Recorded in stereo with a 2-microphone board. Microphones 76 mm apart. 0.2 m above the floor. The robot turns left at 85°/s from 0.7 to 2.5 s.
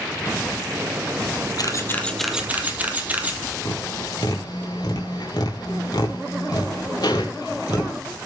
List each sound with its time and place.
1.6 s a camera shutter: 55° left (ahead or behind), 1.4 m; by 3.4 s 20° right (ahead or behind), 1.4 m
3.6 s tapping: 70° left (ahead or behind), 3.5 m